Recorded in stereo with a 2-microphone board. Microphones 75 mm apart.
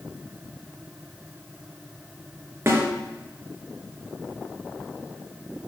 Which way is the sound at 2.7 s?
35° right (ahead or behind).